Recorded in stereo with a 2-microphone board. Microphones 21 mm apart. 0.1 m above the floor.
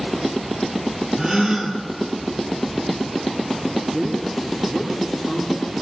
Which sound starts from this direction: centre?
A man speaking, at 3.9 s.